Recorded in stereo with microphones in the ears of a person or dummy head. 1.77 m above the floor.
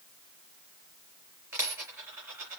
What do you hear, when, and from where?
1.5 s a dropped coin: 10° right (ahead or behind), 4 m